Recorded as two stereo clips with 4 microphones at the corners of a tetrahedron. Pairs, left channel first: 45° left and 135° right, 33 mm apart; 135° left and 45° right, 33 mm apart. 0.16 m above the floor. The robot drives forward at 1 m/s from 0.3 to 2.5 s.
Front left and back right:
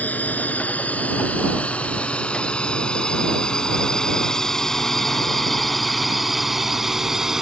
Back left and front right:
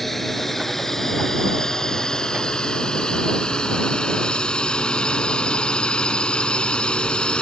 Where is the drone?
55° left; by 7.4 s 160° left.